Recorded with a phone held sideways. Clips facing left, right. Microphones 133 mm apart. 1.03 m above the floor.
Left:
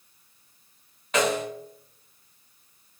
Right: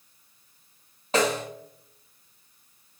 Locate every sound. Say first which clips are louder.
1.1 s a snare drum: even; 35° right (ahead or behind), 0.9 m